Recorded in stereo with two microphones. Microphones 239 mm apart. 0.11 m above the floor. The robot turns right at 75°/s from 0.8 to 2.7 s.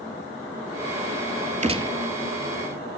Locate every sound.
1.6 s a gunshot: 30° right (ahead or behind), 0.6 m; by 2.0 s 10° right (ahead or behind), 0.6 m